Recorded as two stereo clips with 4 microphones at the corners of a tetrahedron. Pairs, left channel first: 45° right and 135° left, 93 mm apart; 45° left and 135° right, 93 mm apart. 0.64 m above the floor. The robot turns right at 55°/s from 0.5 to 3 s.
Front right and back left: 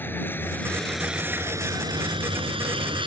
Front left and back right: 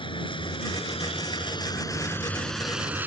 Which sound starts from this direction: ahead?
A vehicle, at 0.0 s.